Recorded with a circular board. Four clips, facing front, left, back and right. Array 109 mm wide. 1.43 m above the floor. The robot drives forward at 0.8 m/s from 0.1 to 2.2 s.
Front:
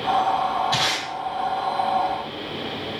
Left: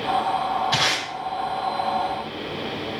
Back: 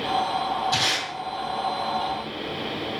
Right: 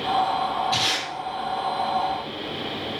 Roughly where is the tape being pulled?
Left.